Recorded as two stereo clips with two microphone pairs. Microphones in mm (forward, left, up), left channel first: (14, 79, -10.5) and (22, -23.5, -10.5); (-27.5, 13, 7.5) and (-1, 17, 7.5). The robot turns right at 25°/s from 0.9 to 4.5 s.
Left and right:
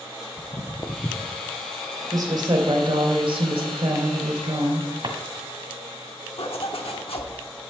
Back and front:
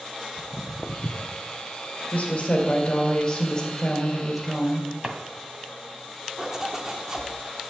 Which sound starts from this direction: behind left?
Footsteps, at 0.4 s.